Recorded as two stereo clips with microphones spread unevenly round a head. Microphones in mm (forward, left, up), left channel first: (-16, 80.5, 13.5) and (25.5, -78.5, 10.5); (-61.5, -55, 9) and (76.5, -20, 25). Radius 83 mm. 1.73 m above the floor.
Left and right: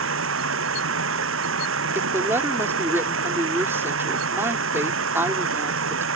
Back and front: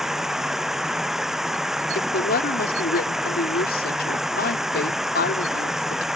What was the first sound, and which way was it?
Running water, 70° right.